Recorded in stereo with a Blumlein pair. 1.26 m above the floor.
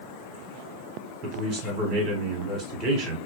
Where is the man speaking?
35° right, 1.2 m.